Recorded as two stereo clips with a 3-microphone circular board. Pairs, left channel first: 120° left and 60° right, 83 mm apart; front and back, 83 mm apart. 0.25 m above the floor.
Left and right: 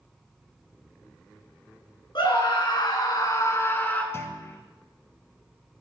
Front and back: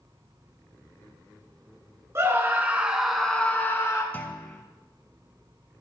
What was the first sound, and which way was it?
A scream, 125° left.